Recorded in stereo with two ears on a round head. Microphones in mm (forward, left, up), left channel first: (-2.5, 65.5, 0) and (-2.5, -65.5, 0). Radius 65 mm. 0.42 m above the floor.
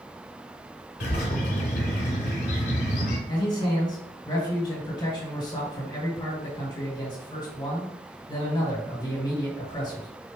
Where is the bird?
65° left (ahead or behind), 1.4 m.